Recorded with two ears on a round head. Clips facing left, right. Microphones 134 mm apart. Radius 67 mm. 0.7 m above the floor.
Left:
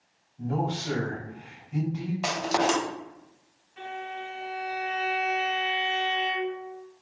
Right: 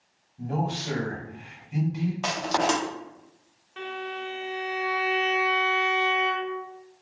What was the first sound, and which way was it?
A man speaking, 15° right (ahead or behind).